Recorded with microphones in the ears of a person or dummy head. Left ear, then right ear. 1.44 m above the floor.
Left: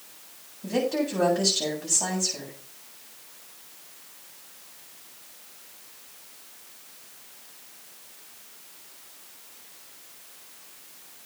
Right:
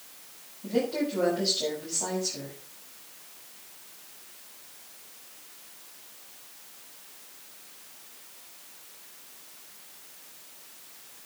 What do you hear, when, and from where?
0.6 s a woman speaking: 60° left (ahead or behind), 7.5 m